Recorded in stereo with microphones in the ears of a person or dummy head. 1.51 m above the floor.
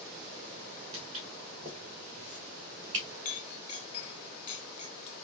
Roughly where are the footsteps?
Right.